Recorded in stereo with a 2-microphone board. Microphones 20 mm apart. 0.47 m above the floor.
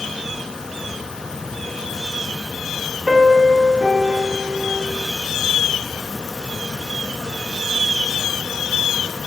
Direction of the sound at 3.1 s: 35° right (ahead or behind).